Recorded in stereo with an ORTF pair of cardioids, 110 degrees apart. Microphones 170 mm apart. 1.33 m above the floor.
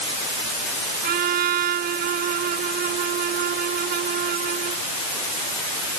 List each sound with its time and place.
1.0 s a trumpet: 65° right